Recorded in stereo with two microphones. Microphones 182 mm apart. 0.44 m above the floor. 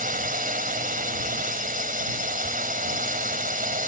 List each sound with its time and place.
0.0 s a drone: 50° right (ahead or behind)